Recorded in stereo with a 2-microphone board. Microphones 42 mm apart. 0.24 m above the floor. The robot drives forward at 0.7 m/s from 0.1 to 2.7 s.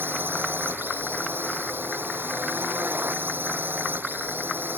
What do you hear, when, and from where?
0.0 s a drone: 60° right (ahead or behind); by 4.8 s 55° right (ahead or behind)